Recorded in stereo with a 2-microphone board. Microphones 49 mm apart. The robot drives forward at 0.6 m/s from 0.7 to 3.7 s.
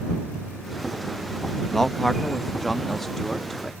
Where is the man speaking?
10° left (ahead or behind); by 3.7 s 5° left (ahead or behind).